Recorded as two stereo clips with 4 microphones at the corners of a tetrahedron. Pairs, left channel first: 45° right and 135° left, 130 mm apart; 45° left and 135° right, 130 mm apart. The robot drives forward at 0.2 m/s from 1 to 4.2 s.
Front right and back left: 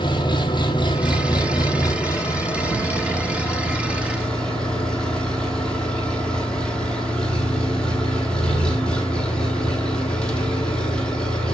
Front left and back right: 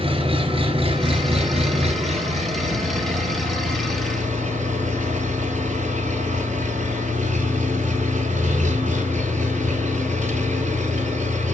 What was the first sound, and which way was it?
An engine running, 95° right.